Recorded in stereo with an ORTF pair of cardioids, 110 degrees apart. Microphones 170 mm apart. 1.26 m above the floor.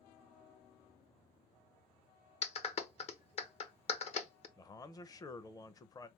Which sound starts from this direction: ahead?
A man speaking, at 4.6 s.